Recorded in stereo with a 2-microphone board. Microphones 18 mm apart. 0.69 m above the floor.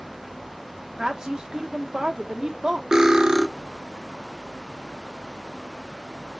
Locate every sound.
1.0 s a woman speaking: 45° right (ahead or behind), 1.0 m
2.9 s cutlery clinking: 40° right (ahead or behind), 0.7 m